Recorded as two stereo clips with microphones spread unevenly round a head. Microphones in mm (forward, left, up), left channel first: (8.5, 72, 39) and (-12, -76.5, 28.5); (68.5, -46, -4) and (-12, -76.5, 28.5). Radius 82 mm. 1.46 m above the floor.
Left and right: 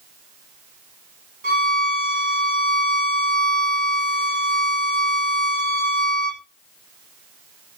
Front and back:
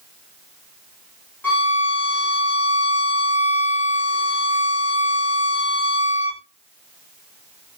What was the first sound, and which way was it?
A violin, 55° right.